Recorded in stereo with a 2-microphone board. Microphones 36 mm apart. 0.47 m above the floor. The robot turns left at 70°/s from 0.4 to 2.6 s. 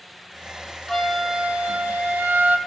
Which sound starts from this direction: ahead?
A flute, at 0.9 s.